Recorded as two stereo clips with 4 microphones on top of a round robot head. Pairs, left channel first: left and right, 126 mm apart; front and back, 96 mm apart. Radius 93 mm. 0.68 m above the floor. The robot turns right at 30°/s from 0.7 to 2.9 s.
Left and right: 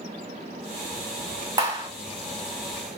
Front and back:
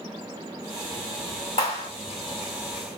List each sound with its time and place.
1.6 s a clap: 30° right, 2.0 m; by 1.9 s 20° right, 2.0 m